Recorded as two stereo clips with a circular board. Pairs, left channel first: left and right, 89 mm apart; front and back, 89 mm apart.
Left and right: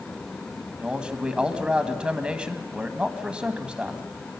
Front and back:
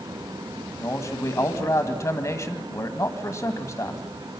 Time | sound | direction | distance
0.8 | a man speaking | 20° right | 1.4 m